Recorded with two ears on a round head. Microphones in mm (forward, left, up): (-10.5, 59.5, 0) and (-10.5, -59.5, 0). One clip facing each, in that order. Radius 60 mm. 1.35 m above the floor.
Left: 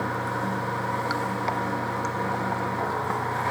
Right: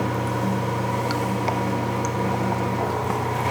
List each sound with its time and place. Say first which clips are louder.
0.0 s running water: right 4 dB; 20° right (ahead or behind), 0.8 m